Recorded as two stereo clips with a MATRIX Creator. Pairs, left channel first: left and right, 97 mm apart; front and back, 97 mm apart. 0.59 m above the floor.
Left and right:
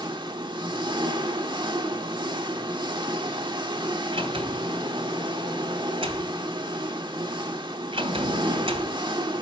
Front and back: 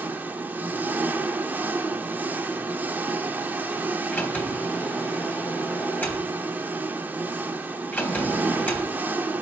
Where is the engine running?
115° right, 1.1 m.